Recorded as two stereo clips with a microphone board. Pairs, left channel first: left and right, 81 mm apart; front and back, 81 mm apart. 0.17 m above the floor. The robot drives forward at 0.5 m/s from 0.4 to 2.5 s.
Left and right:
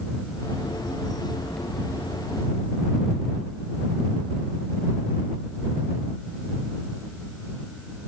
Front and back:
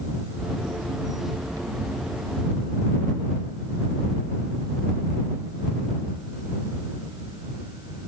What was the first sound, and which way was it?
Only background noise.